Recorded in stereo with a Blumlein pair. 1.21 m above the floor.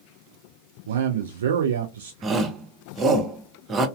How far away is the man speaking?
About 0.5 m.